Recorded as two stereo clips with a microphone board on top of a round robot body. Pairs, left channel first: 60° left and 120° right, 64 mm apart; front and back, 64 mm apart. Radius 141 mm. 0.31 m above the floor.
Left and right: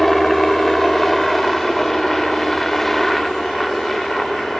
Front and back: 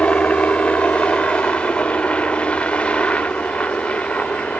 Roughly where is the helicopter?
Ahead.